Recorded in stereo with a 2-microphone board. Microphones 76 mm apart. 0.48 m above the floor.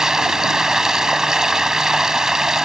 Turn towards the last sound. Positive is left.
turn(degrees=-5)  # may be behind; listen again after turning